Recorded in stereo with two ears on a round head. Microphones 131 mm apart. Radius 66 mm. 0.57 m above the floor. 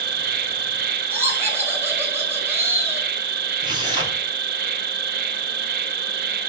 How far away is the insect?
About 0.9 m.